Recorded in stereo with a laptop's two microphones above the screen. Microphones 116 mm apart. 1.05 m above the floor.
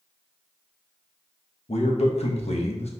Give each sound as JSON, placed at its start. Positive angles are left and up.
{"t": 1.7, "sound": "a man speaking", "side_deg": 65, "distance_m": 1.0}